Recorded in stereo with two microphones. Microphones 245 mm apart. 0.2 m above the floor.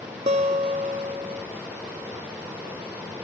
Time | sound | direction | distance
0.3 | a guitar | 30° right (ahead or behind) | 0.7 m